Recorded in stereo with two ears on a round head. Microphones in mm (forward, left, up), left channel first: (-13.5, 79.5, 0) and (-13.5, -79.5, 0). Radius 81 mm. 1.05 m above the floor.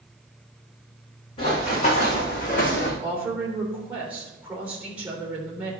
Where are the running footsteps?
30° left (ahead or behind), 4 m; by 2.9 s 55° left (ahead or behind), 2.5 m.